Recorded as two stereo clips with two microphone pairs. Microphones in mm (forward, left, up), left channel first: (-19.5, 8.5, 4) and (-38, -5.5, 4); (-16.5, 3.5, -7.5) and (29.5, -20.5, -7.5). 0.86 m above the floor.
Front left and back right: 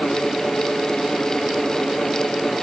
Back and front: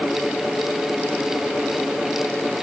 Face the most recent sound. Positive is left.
No sound to turn to.